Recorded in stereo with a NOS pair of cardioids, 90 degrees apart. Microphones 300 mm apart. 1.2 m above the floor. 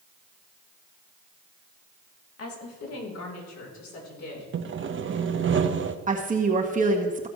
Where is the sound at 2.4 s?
55° left, 3 m; by 4.4 s 70° left, 5.5 m.